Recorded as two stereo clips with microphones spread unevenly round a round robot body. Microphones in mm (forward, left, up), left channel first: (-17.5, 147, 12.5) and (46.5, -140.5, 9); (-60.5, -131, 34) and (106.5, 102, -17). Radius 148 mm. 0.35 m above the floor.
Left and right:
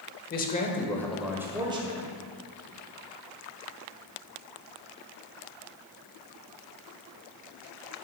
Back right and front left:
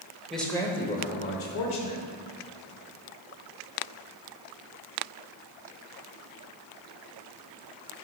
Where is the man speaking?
125° left, 1.2 m; by 2.2 s 135° right, 1.7 m.